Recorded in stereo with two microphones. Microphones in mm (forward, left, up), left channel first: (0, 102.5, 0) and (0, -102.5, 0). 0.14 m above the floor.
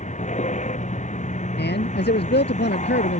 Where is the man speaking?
60° left (ahead or behind).